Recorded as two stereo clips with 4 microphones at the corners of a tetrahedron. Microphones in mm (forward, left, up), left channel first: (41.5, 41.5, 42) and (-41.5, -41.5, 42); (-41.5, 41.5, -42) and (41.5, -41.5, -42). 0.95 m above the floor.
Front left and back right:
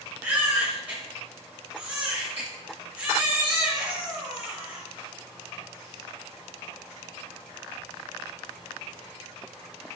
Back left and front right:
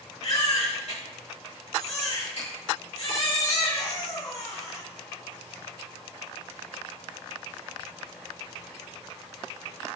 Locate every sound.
0.2 s a baby crying: 150° left, 3.5 m